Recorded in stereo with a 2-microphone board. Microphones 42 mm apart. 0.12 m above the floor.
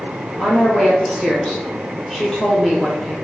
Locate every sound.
0.4 s a woman speaking: 5° left (ahead or behind), 2 m